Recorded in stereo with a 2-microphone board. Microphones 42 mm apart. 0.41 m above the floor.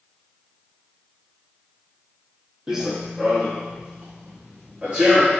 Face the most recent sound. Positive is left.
turn(degrees=-25)  # may be behind; listen again after turning